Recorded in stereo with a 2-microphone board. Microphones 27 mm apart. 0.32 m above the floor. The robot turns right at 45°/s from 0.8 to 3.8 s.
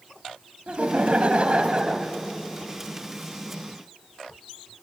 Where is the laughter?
95° right, 1.9 m; by 2.1 s 35° right, 1.9 m.